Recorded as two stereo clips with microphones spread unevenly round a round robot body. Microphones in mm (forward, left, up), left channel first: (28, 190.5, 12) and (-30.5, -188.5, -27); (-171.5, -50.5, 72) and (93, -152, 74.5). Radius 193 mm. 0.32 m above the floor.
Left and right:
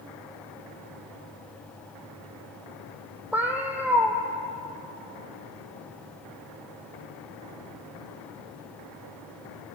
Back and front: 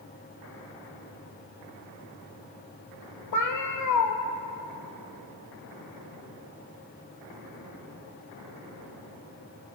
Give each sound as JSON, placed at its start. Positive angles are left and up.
{"t": 3.3, "sound": "a cat meowing", "azimuth_deg": 175, "distance_m": 1.2}